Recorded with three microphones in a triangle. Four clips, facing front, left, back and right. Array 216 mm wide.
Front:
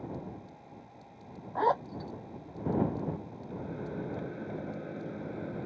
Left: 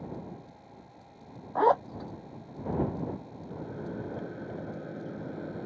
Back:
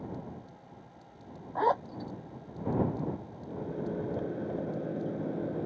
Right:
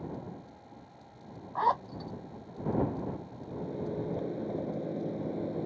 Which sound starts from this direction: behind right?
A microwave, at 3.5 s.